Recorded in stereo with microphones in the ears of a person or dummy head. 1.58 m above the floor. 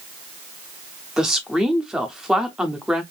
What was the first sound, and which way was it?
A woman speaking, 5° right (ahead or behind).